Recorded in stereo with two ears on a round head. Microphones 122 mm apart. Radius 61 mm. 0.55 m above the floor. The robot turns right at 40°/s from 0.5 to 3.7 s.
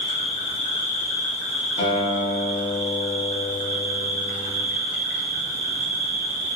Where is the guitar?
130° left, 0.7 m; by 4.6 s 155° right, 0.7 m.